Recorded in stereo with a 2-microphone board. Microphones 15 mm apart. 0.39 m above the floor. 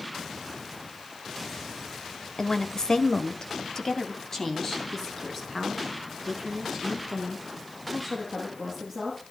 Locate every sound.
2.4 s a woman speaking: 45° left (ahead or behind), 1.5 m; by 9.2 s 15° left (ahead or behind), 9 m